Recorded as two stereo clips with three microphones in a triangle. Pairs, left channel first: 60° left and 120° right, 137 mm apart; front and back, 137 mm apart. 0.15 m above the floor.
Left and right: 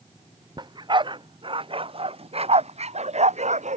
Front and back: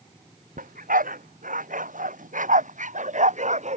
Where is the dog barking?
175° right; by 3.8 s 150° right.